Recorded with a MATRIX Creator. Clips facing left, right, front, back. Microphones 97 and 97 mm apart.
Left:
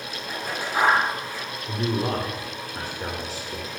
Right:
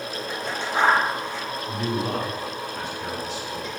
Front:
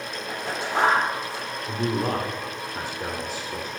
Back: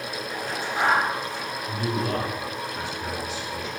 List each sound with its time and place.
0.3 s scissors: 10° left, 9 m
1.7 s a man speaking: 40° left, 3 m